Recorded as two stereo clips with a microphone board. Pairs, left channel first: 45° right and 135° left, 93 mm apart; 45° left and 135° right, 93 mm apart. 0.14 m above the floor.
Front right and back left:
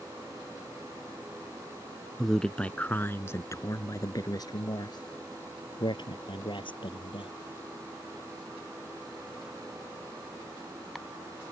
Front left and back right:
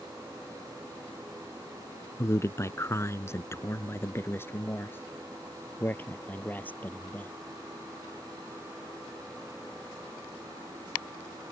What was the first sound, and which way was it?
A man speaking, 45° left.